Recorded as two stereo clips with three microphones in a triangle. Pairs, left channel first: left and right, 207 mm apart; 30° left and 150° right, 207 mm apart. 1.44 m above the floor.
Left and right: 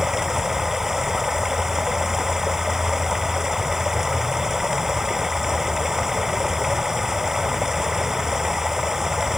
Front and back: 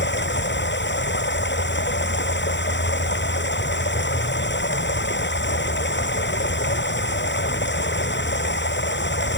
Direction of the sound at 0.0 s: Straight ahead.